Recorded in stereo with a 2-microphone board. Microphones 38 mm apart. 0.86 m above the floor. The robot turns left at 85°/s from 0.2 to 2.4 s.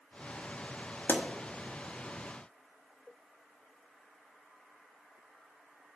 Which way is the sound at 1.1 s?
60° left (ahead or behind).